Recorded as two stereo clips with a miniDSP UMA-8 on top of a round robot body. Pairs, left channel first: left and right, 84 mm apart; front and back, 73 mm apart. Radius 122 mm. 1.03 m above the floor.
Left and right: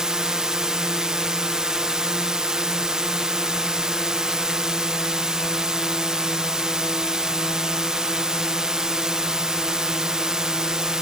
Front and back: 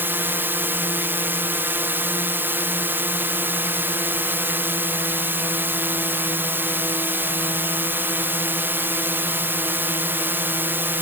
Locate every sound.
0.0 s a drone: 165° right